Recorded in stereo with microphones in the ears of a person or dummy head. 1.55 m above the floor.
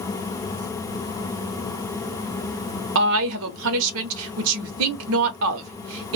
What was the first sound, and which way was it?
A woman speaking, 65° right (ahead or behind).